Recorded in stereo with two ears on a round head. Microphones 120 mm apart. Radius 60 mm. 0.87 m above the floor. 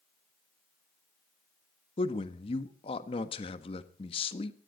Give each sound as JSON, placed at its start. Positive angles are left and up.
{"t": 2.0, "sound": "a man speaking", "side_deg": 40, "distance_m": 1.4}